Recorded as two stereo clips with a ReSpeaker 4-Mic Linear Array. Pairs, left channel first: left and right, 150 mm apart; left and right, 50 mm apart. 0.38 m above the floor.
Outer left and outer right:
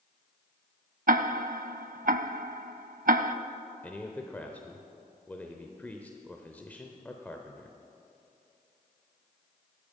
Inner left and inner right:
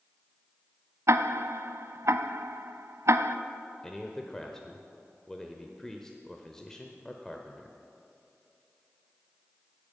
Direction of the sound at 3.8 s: 10° left (ahead or behind).